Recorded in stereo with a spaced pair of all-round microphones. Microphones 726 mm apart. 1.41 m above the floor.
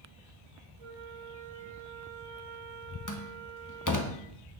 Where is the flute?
45° right (ahead or behind), 5 m.